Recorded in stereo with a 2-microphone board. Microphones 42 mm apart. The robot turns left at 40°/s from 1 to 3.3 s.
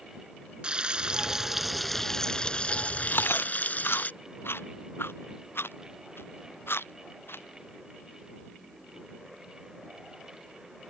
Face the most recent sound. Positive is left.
turn(degrees=80)